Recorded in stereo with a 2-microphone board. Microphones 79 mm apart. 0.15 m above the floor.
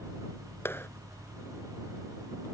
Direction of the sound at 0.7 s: 35° left (ahead or behind).